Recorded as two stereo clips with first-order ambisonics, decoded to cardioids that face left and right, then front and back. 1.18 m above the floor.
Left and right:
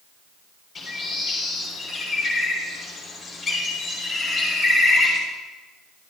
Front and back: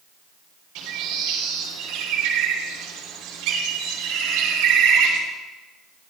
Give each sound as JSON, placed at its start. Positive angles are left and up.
{"t": 0.8, "sound": "a bird", "azimuth_deg": 175, "distance_m": 3.0}